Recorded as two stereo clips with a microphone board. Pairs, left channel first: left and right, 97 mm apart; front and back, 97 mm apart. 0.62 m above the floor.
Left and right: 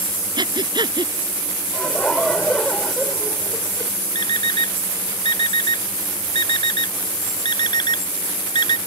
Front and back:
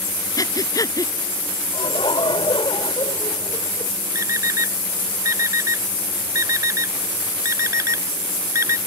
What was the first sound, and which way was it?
Breathing, 50° right.